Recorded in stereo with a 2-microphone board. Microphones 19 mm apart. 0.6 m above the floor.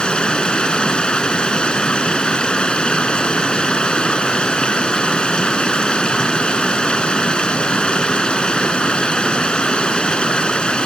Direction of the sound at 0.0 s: 65° left (ahead or behind).